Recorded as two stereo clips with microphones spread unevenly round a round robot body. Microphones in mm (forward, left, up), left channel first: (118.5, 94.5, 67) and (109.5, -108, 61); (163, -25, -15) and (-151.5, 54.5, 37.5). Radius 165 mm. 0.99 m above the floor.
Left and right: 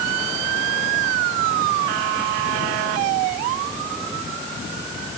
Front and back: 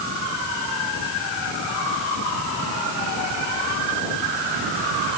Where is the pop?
I don't hear a pop.